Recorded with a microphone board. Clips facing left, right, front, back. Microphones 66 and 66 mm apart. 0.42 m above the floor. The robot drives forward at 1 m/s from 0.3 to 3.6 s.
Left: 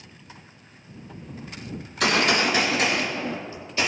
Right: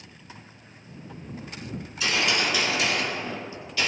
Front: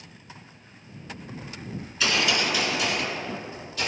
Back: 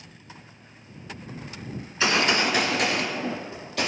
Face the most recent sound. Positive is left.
turn(degrees=155)